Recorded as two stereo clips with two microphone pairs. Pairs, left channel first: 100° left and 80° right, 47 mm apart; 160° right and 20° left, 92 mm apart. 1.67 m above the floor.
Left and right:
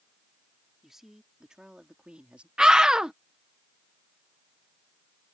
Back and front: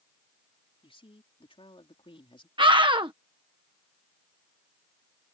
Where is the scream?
5° right.